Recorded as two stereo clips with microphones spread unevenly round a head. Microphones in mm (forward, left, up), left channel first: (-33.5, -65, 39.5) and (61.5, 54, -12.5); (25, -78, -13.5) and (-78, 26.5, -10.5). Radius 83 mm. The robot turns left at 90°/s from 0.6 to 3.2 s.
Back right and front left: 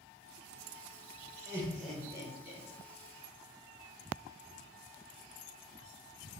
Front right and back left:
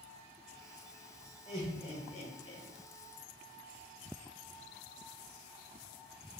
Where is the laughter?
20° left, 0.5 m; by 2.6 s 85° right, 0.5 m.